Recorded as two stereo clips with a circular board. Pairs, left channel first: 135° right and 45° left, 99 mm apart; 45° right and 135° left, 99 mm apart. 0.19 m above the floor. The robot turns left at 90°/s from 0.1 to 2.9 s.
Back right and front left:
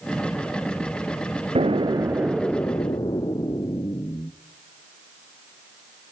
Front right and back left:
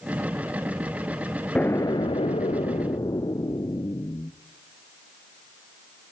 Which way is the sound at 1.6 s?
30° left.